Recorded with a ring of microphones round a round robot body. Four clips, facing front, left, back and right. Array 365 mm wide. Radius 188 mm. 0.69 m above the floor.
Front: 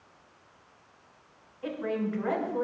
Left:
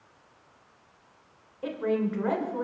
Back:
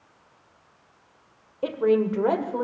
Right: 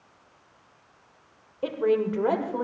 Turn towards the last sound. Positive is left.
turn(degrees=-150)